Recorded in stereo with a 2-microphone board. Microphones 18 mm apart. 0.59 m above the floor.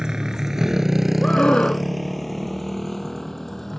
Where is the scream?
75° left (ahead or behind).